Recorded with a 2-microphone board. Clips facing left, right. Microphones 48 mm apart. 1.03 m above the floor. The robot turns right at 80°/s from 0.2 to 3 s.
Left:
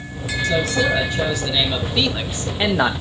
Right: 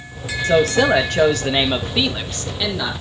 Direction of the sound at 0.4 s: 135° right.